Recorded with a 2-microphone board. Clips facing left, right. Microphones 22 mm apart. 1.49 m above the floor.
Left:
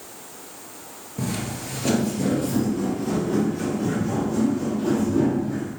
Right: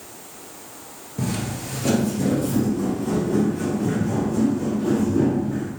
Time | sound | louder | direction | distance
1.2 | footsteps | right 2 dB | 10° right (ahead or behind) | 1.6 m